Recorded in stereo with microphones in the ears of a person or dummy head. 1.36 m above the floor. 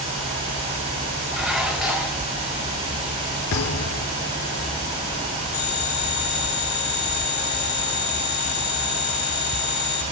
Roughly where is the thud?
Left.